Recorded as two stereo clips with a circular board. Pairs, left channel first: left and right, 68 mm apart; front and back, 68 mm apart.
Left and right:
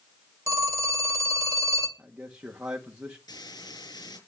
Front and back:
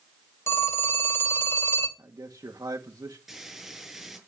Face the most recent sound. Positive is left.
turn(degrees=95)